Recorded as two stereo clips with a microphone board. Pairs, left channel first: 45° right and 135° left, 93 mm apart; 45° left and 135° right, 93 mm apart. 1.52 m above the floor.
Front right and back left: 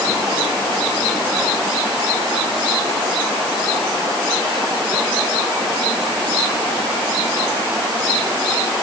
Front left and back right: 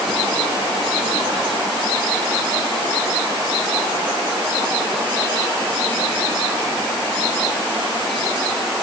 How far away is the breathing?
I don't hear breathing.